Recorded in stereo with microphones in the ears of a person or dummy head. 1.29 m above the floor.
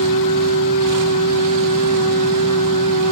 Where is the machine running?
45° left (ahead or behind), 1.8 m.